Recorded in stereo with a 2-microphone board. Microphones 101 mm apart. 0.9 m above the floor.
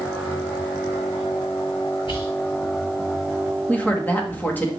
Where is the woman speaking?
20° left (ahead or behind), 1.6 m.